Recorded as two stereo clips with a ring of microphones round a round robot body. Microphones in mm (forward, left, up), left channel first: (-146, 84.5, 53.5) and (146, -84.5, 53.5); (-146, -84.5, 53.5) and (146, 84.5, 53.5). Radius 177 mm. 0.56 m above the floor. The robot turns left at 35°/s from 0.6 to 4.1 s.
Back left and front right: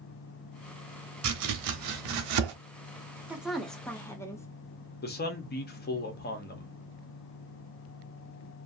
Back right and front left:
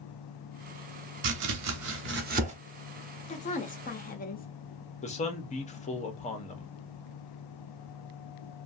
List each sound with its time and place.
1.2 s chopping: 5° left, 0.8 m; by 2.5 s 40° right, 0.8 m
3.3 s a woman speaking: 110° right, 0.7 m; by 4.5 s 140° right, 0.7 m
5.0 s a man speaking: 165° left, 0.9 m